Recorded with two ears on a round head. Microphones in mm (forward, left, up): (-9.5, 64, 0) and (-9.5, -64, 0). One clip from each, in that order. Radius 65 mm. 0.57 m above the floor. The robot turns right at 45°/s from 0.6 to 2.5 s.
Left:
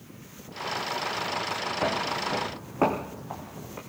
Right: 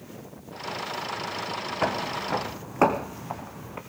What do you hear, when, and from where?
1.8 s footsteps: 45° right (ahead or behind), 1.8 m; by 3.8 s 35° right (ahead or behind), 2 m